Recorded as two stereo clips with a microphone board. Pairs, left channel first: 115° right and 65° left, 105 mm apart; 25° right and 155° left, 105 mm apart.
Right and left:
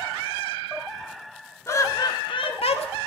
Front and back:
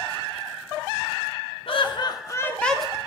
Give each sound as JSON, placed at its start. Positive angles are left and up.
{"t": 1.7, "sound": "laughter", "azimuth_deg": -50, "distance_m": 1.9}